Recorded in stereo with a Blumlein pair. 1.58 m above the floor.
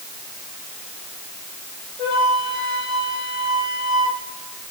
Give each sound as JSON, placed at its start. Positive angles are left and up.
{"t": 2.0, "sound": "a flute", "azimuth_deg": 25, "distance_m": 7.0}